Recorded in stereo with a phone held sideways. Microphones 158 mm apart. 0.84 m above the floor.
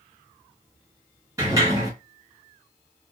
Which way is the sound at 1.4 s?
20° right (ahead or behind).